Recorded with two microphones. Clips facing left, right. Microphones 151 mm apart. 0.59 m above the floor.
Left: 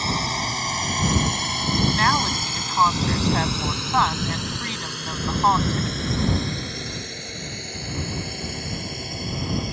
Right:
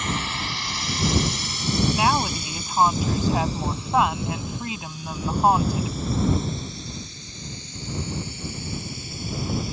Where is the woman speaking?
10° right (ahead or behind).